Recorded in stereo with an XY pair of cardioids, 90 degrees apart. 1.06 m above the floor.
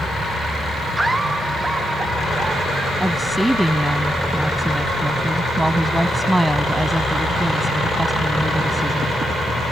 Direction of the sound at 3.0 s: 5° right.